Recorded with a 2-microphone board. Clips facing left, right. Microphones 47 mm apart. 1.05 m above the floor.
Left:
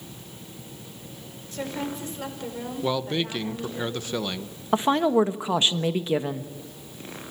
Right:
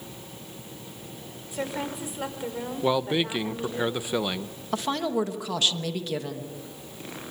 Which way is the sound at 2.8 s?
15° right (ahead or behind).